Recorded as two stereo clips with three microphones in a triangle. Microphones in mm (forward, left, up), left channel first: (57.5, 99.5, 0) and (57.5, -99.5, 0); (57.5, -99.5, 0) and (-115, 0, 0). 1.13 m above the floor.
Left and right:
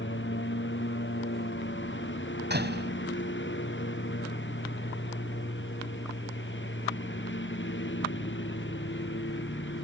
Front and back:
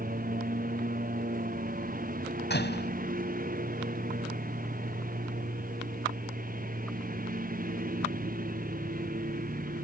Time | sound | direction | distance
0.0 | a lawn mower | 105° left | ?
2.5 | a door slam | 60° right | ?